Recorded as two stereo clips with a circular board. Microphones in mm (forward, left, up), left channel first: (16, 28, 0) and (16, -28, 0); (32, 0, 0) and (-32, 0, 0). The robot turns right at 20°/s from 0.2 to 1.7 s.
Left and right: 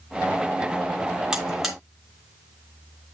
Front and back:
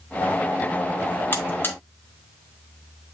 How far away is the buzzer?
About 2 m.